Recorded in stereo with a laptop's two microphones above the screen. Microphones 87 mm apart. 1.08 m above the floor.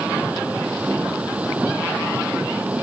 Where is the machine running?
15° right (ahead or behind).